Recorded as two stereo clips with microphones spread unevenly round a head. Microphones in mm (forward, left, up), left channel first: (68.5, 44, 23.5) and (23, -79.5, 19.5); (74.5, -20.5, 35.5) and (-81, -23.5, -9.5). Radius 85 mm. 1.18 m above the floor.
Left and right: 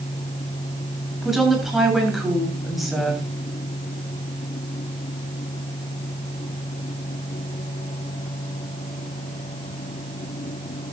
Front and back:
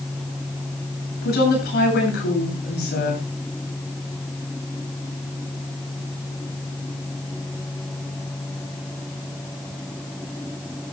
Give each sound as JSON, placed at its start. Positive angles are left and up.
{"t": 1.2, "sound": "a woman speaking", "azimuth_deg": -20, "distance_m": 8.0}